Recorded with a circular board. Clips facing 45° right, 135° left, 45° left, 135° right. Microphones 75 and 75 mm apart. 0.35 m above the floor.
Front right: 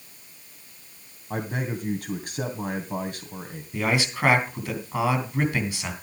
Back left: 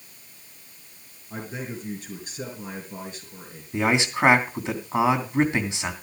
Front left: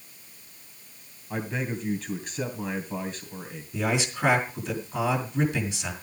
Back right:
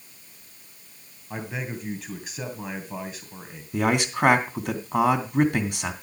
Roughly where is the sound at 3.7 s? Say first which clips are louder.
Back left 3 dB, back right 4 dB; behind.